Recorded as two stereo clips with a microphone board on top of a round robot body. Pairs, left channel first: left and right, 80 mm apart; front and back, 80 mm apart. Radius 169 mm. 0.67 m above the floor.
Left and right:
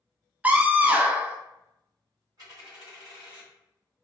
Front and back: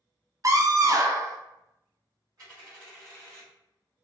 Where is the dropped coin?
135° right, 1.2 m.